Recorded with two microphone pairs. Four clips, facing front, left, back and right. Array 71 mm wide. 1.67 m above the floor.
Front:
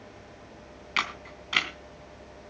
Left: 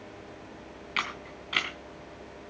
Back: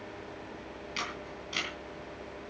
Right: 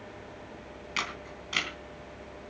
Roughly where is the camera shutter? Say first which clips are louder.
Left 2 dB, front 8 dB; ahead.